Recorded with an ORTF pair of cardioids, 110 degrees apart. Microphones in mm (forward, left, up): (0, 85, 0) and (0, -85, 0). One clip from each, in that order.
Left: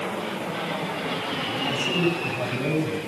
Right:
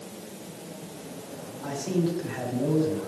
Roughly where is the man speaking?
Ahead right.